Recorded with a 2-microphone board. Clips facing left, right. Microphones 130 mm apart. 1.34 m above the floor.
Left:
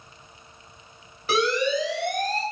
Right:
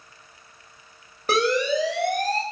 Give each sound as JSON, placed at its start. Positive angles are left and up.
{"t": 1.3, "sound": "a siren", "side_deg": -45, "distance_m": 6.5}